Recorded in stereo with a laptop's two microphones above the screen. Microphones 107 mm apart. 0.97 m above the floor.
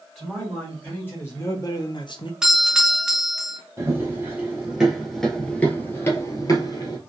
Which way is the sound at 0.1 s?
10° left (ahead or behind).